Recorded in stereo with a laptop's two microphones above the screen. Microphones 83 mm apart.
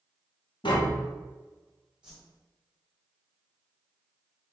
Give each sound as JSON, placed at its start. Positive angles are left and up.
{"t": 0.6, "sound": "tapping", "side_deg": 80, "distance_m": 0.8}
{"t": 2.0, "sound": "a whoosh", "side_deg": -10, "distance_m": 1.4}